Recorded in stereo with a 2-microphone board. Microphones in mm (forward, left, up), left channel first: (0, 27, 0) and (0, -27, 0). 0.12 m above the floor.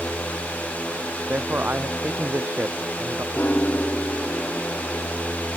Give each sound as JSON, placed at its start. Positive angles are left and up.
{"t": 1.3, "sound": "a man speaking", "side_deg": -35}
{"t": 3.3, "sound": "a piano", "side_deg": 30}